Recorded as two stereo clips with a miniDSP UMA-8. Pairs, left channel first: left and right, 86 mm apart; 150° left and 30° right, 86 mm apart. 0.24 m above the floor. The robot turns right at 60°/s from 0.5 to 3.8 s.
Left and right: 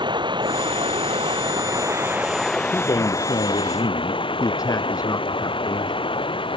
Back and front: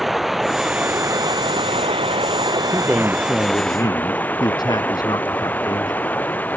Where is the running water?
120° right; by 6.6 s 80° left.